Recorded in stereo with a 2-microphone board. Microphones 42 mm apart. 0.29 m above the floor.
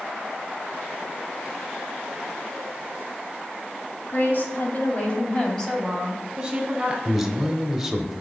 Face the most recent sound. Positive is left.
turn(degrees=-5)  # may be behind; listen again after turning